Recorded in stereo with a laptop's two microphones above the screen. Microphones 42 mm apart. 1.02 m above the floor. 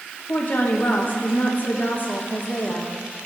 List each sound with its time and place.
0.3 s a woman speaking: 45° left (ahead or behind), 1.1 m